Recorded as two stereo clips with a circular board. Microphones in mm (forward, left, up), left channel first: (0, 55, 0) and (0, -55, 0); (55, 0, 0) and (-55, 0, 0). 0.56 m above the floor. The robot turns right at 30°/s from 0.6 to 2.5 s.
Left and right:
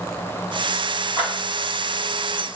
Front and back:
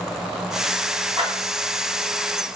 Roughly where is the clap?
Behind.